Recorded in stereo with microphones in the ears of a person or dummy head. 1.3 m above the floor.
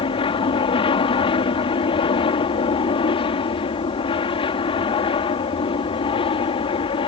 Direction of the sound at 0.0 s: 30° left (ahead or behind).